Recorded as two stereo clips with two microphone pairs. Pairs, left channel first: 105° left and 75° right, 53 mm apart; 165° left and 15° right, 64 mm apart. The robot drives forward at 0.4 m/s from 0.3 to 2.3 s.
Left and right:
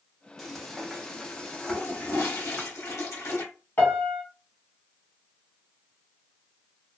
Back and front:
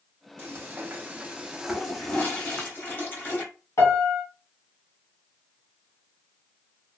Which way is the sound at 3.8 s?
145° left.